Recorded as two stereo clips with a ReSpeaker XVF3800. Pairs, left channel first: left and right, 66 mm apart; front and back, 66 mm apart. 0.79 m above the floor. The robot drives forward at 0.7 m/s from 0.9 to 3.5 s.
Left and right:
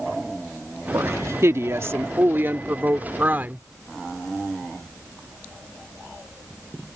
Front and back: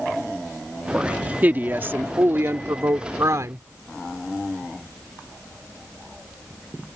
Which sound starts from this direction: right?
A woman speaking, at 0.9 s.